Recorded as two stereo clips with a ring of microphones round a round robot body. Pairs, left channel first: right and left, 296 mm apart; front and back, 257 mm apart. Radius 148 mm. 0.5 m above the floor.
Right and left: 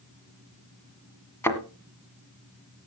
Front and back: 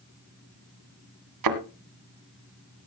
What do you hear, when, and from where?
1.4 s a thud: 170° right, 1.6 m